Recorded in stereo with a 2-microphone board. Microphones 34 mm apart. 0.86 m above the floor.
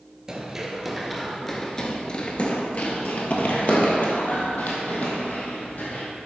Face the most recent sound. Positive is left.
turn(degrees=50)  # may be behind; listen again after turning